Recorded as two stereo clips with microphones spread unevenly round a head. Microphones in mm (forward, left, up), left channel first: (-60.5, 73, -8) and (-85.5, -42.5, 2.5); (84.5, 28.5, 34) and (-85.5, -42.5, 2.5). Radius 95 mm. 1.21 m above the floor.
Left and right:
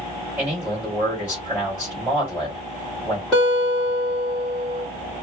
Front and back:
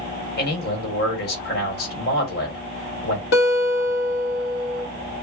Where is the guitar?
10° right, 1.2 m.